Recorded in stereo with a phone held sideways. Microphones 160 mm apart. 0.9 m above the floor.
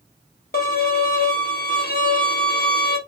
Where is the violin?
75° left (ahead or behind), 0.9 m.